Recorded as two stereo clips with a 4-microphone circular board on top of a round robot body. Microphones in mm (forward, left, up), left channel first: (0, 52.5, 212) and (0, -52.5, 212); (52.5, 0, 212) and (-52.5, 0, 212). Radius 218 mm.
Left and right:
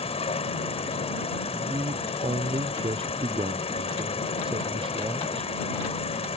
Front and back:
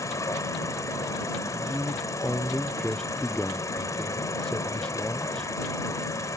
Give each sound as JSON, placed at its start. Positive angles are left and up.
{"t": 0.0, "sound": "an insect", "azimuth_deg": 60}
{"t": 1.5, "sound": "a man speaking", "azimuth_deg": -85}